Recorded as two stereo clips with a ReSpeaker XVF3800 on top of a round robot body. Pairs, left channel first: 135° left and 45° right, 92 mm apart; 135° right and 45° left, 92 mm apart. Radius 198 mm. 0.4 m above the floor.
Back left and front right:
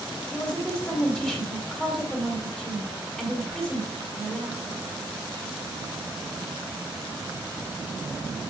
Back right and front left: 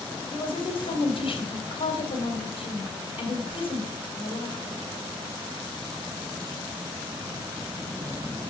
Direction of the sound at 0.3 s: 140° right.